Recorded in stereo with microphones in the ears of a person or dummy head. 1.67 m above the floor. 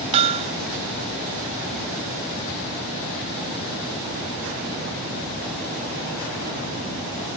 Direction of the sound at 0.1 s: 30° right (ahead or behind).